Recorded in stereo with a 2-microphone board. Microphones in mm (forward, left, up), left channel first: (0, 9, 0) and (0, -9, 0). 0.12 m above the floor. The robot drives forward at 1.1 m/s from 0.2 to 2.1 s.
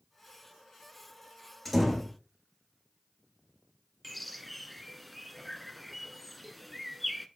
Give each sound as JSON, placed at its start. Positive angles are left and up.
{"t": 1.6, "sound": "a door slam", "side_deg": 0, "distance_m": 4.0}
{"t": 4.0, "sound": "a bird", "side_deg": 5, "distance_m": 0.6}